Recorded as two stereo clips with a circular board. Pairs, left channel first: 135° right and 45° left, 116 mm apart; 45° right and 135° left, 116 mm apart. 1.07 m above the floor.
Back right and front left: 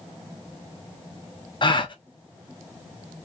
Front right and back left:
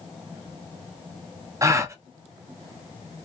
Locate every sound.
1.6 s a gasp: 170° right, 0.5 m